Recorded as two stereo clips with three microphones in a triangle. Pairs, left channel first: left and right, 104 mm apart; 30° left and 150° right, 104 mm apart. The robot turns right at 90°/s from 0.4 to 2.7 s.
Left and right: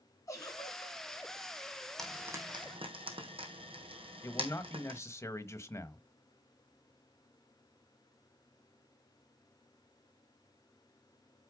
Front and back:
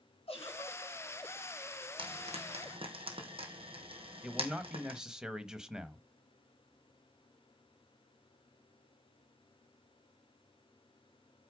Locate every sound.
0.3 s a giggle: 35° left, 4 m; by 1.0 s 85° left, 4 m
2.0 s frying: 175° left, 3 m; by 5.0 s 120° right, 3 m
4.2 s a man speaking: 130° left, 1.1 m